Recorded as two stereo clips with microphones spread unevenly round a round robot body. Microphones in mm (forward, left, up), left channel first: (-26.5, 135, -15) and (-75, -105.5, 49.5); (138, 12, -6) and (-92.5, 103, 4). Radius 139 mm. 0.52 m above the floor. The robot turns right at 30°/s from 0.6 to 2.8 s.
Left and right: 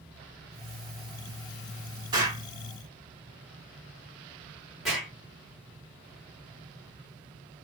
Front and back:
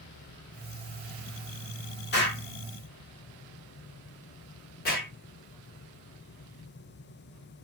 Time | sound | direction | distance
2.1 | an explosion | 15° right | 1.7 m